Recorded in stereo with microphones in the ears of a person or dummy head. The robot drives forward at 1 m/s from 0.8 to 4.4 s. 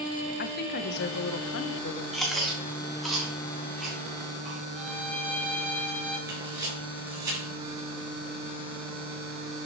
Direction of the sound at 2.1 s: 5° right (ahead or behind).